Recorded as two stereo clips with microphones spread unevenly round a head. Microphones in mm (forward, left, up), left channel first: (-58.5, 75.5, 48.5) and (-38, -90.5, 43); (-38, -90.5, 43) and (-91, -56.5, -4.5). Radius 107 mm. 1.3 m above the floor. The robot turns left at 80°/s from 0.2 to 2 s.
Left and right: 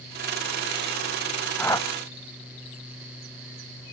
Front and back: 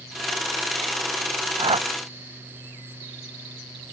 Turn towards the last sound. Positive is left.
turn(degrees=140)